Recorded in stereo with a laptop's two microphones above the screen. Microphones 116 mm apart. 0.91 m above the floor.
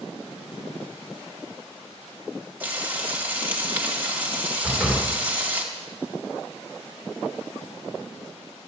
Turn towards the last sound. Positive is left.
turn(degrees=-5)  # may be behind; listen again after turning